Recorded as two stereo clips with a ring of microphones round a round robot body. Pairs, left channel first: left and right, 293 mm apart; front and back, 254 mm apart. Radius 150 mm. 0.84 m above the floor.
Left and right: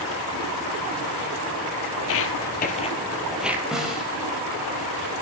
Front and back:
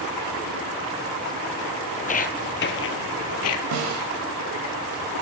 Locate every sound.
2.0 s footsteps: 60° left, 1.5 m; by 3.6 s 10° right, 1.4 m
3.7 s a snare drum: straight behind, 4.5 m